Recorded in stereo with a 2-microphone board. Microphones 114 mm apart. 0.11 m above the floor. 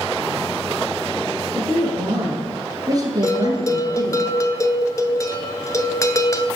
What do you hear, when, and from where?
1.6 s a woman speaking: 20° right (ahead or behind), 2.5 m; by 4.2 s 35° right (ahead or behind), 1.6 m
3.2 s a bell: 30° left (ahead or behind), 0.5 m